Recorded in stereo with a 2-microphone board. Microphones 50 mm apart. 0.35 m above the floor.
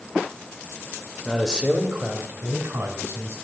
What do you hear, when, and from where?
1.2 s a man speaking: centre (ahead or behind), 0.9 m; by 3.4 s 55° right (ahead or behind), 2.5 m